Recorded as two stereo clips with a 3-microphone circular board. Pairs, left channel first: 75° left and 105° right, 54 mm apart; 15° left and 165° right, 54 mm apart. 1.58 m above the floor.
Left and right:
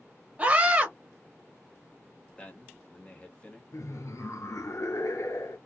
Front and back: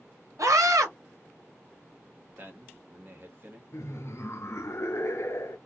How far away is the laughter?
About 0.7 m.